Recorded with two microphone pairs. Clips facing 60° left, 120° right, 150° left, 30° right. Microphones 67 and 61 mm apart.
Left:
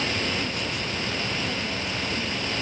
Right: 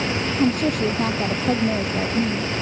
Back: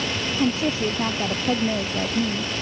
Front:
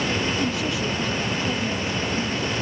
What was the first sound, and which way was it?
A woman speaking, 155° right.